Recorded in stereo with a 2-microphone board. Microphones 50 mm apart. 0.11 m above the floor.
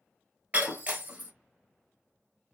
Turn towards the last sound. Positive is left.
turn(degrees=-35)  # may be behind; listen again after turning